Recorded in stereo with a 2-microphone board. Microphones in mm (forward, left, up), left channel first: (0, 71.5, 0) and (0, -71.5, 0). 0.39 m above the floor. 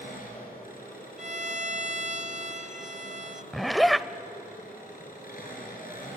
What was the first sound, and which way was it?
An engine running, 80° left.